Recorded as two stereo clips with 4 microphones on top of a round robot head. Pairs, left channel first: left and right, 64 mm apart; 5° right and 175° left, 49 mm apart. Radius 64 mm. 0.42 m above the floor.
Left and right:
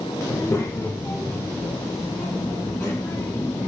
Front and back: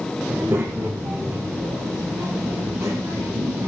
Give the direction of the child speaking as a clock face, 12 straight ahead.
7 o'clock.